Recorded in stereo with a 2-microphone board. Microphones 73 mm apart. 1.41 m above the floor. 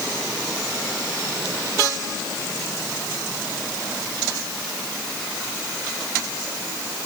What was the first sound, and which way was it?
Only background noise.